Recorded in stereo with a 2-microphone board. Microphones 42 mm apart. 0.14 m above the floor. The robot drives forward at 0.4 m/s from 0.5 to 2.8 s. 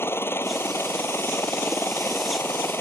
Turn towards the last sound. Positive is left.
turn(degrees=60)  # may be behind; listen again after turning